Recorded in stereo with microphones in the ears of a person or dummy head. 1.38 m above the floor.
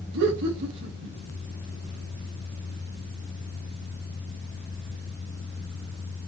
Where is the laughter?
65° right (ahead or behind), 3 m.